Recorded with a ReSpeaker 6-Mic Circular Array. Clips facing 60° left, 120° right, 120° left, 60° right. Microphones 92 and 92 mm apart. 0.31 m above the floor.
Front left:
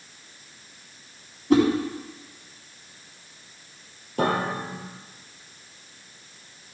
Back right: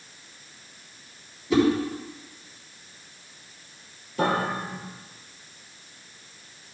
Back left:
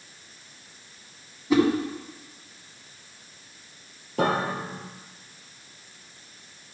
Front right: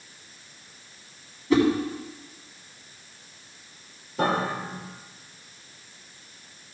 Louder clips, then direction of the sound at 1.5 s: Front left 3 dB, even; 45° left.